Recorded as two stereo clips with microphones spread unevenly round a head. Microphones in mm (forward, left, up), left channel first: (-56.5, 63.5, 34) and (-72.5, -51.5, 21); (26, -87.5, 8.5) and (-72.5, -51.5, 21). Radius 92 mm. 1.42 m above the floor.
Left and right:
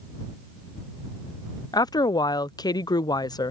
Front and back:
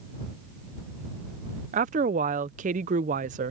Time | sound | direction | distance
1.7 | a woman speaking | 145° left | ?